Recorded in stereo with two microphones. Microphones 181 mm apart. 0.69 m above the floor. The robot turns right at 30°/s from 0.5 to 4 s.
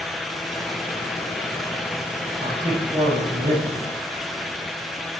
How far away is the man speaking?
About 9 m.